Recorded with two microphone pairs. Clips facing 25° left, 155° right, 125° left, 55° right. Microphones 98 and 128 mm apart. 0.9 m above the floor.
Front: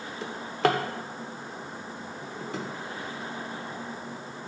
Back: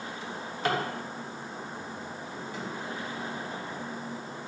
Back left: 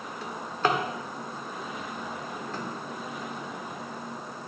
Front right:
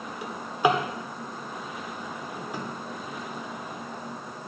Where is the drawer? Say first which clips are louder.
Front 7 dB, front right 4 dB; 25° left, 1.3 m.